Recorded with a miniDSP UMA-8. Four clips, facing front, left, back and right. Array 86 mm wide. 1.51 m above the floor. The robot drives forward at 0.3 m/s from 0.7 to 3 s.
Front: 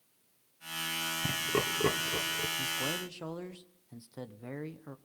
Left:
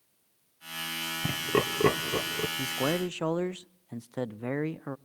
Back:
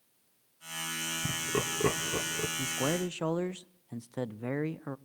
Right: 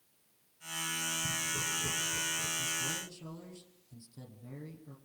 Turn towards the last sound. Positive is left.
turn(degrees=115)